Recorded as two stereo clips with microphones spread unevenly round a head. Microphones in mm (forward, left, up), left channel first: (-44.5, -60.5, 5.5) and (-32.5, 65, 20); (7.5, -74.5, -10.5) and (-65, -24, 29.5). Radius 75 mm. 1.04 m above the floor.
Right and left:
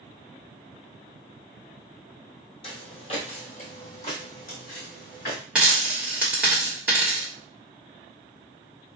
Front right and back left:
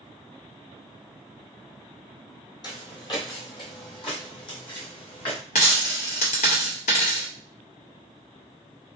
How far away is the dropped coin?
About 0.8 m.